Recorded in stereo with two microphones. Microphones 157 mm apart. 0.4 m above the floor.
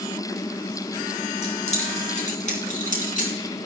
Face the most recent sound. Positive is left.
turn(degrees=55)  # may be behind; listen again after turning